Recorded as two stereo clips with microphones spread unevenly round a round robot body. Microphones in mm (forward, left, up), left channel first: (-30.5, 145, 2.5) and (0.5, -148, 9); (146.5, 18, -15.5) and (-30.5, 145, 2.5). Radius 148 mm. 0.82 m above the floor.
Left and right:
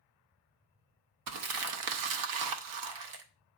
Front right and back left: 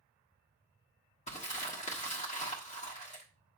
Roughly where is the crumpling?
Right.